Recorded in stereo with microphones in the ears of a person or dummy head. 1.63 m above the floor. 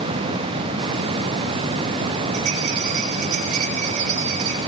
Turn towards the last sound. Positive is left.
turn(degrees=-45)  # may be behind; listen again after turning